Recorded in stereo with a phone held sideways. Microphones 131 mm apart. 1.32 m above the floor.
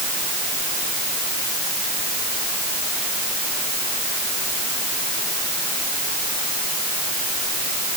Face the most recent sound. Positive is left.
No sound to turn to.